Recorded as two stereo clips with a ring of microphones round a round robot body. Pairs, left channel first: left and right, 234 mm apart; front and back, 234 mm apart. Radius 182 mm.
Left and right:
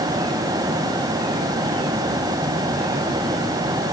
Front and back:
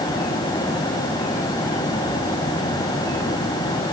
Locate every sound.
Only background noise.